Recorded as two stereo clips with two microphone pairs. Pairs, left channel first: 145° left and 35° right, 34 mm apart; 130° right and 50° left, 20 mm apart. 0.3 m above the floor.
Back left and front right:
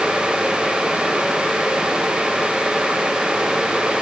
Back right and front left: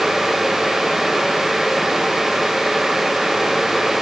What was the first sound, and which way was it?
Only background noise.